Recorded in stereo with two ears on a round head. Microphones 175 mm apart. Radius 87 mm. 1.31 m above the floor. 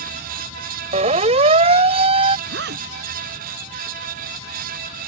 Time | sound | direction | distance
0.9 | a siren | 35° right (ahead or behind) | ?
2.5 | a zipper | 60° right (ahead or behind) | ?